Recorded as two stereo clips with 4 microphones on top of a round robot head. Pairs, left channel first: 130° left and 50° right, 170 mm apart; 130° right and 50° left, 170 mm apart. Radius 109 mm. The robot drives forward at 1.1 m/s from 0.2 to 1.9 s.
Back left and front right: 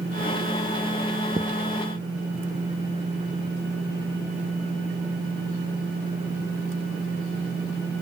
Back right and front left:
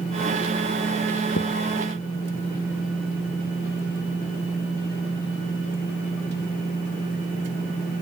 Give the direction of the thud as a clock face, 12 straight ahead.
4 o'clock.